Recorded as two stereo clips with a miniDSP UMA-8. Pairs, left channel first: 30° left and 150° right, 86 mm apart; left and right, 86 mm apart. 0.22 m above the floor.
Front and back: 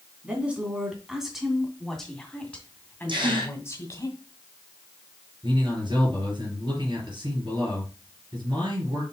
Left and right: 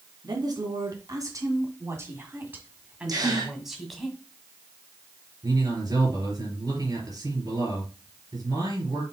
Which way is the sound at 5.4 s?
125° right.